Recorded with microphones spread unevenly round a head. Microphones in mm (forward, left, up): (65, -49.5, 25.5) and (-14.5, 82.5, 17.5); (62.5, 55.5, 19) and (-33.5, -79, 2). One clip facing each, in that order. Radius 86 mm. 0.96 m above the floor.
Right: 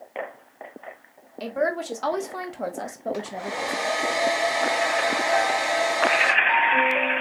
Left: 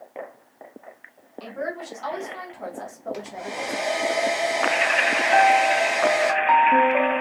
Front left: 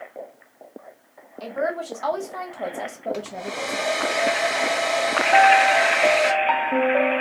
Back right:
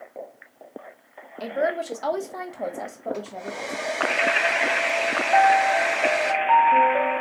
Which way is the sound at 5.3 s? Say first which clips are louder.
Left 9 dB, front left 2 dB; 100° left.